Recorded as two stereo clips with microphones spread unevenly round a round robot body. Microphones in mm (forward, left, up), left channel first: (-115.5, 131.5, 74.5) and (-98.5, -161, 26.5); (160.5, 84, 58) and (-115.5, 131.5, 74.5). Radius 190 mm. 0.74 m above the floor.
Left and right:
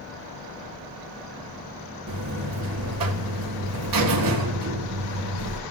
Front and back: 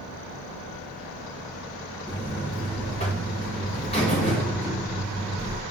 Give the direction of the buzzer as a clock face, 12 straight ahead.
3 o'clock.